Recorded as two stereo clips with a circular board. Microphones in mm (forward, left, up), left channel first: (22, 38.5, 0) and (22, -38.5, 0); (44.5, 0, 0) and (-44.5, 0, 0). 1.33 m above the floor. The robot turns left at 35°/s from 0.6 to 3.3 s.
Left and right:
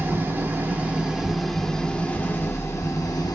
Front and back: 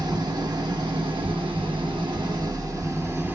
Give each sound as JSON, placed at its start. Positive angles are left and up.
{"t": 0.0, "sound": "an engine running", "azimuth_deg": -150, "distance_m": 1.1}